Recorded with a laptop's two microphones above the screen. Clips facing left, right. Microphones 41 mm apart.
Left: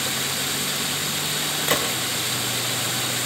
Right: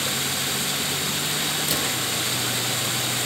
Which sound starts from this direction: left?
A gunshot, at 1.7 s.